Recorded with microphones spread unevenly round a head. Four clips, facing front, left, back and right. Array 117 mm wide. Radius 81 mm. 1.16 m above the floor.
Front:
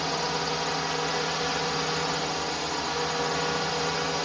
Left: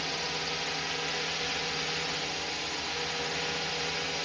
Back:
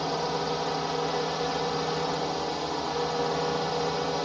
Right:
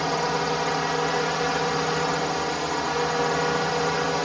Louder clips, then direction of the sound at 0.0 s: Right 12 dB, back 1 dB; 120° right.